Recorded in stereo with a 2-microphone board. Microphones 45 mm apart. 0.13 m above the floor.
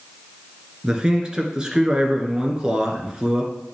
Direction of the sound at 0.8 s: 15° right (ahead or behind).